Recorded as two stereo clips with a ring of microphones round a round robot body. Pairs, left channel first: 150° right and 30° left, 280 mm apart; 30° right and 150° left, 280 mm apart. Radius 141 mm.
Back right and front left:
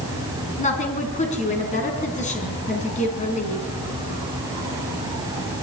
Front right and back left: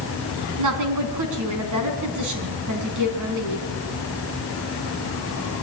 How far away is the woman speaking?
About 4 m.